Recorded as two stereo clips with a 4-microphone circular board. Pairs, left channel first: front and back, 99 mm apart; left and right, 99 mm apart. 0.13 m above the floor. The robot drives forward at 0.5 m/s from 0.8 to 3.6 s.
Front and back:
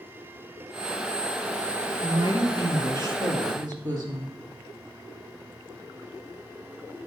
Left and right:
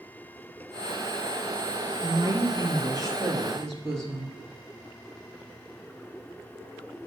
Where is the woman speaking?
130° right, 2.5 m; by 4.3 s 145° right, 3 m.